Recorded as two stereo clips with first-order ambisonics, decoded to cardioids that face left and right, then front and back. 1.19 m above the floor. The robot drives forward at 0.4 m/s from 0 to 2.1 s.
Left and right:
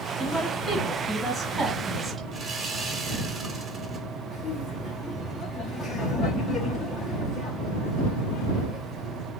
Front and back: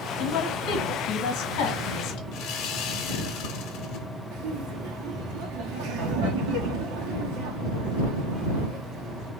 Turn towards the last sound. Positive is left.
turn(degrees=170)